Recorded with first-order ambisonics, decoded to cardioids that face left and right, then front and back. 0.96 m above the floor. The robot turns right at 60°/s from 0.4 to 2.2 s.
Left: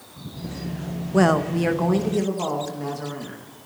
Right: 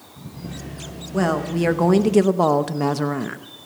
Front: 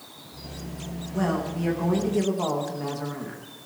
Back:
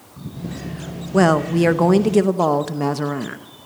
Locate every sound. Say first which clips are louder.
1.1 s a woman speaking: left 2 dB, back 12 dB; 160° left, 0.8 m; by 3.4 s 135° right, 0.8 m